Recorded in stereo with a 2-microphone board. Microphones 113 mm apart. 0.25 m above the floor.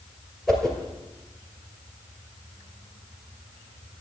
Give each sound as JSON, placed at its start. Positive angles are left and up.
{"t": 0.5, "sound": "a whoosh", "side_deg": 5, "distance_m": 2.0}